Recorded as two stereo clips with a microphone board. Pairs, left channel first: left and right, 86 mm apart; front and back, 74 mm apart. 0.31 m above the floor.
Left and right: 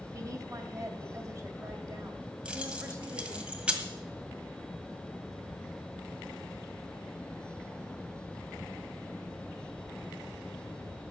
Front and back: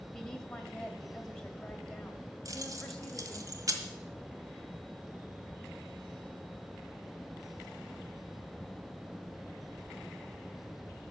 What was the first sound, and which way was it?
A woman speaking, 75° right.